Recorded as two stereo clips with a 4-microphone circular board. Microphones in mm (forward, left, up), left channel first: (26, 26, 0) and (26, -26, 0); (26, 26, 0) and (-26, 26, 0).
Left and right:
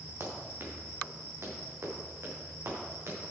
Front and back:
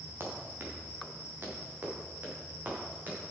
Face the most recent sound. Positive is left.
turn(degrees=-125)